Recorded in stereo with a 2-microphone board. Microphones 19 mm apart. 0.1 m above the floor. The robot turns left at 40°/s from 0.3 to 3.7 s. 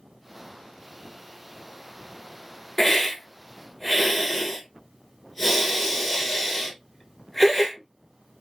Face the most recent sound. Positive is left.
turn(degrees=10)  # may be behind; listen again after turning